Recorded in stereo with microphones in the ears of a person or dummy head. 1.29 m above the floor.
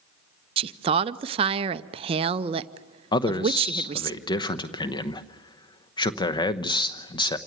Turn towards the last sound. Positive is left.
turn(degrees=25)  # may be behind; listen again after turning